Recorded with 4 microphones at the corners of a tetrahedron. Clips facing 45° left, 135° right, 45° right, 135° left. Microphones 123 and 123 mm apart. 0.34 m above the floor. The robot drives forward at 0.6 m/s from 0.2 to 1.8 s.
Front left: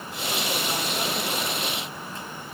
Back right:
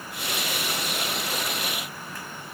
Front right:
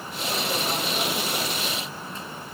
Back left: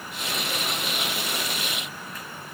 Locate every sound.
Only background noise.